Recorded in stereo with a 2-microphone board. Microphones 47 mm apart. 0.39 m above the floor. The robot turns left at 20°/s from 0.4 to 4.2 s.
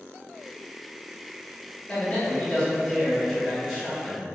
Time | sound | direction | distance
1.9 | a man speaking | 50° left | 1.0 m